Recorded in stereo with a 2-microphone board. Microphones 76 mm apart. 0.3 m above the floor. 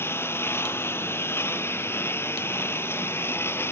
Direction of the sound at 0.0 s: 30° left (ahead or behind).